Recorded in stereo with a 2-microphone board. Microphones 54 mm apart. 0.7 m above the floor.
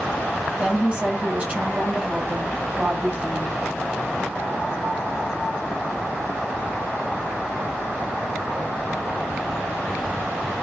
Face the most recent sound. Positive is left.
turn(degrees=-30)  # may be behind; listen again after turning